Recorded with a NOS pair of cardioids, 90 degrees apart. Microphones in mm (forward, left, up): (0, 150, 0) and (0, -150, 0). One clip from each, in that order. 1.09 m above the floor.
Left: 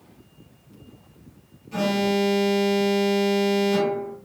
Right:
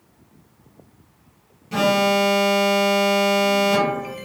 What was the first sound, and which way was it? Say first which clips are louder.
An alarm: right 6 dB; 60° right.